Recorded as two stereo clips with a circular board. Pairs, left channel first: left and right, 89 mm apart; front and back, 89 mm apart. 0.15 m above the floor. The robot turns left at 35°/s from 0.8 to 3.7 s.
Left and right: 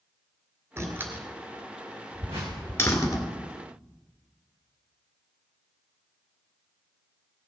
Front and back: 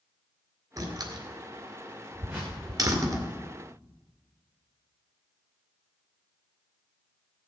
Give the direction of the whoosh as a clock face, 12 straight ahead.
4 o'clock.